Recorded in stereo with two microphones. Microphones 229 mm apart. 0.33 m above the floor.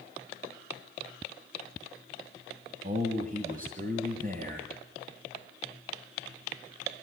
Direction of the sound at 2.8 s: 35° right (ahead or behind).